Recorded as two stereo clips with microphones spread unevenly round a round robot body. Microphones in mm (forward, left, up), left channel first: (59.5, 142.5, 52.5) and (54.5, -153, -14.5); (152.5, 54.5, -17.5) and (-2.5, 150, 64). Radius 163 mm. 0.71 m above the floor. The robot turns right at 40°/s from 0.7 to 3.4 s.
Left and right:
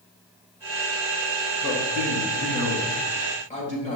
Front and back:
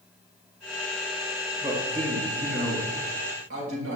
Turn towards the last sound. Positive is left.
turn(degrees=160)